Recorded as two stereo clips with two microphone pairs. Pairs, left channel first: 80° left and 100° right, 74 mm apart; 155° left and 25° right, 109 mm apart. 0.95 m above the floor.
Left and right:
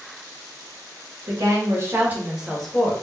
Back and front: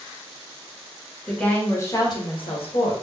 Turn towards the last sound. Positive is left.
turn(degrees=155)